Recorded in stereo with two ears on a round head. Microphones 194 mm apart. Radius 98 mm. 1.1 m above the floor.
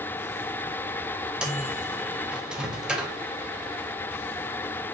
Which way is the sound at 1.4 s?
5° right (ahead or behind).